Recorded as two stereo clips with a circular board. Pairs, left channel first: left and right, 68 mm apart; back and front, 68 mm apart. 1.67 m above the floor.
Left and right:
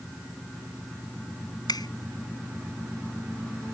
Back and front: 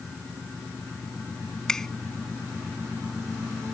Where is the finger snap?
100° left.